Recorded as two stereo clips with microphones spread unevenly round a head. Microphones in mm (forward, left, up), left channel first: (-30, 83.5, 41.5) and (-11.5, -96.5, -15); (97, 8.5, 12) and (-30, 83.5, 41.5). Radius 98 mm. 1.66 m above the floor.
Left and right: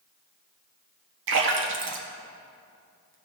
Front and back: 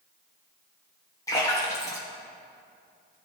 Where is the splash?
105° right, 1.3 m.